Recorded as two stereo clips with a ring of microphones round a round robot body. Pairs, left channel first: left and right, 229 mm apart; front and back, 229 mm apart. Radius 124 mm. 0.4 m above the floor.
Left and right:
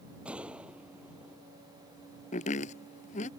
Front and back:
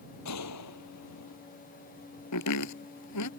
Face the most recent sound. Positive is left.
turn(degrees=25)